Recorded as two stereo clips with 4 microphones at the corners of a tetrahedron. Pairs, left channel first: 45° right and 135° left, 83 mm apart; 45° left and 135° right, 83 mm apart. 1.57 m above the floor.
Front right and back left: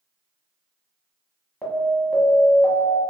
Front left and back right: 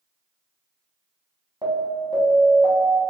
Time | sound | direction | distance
1.6 | an alarm | 115° right | 1.2 m